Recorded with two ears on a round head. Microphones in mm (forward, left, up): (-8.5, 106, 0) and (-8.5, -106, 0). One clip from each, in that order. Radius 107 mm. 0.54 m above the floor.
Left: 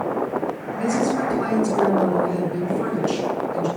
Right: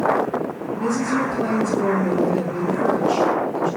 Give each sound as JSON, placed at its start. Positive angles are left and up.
{"t": 0.8, "sound": "a woman speaking", "side_deg": 50, "distance_m": 8.0}